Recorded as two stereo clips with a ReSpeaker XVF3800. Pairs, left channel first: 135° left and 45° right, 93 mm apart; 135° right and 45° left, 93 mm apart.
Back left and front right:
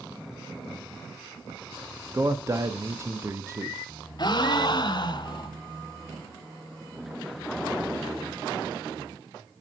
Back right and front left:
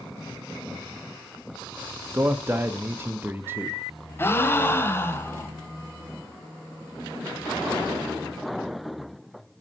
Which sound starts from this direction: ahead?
A man speaking, at 2.1 s.